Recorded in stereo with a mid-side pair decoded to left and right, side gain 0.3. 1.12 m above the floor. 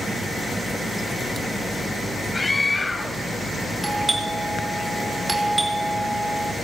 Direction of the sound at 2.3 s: 30° left.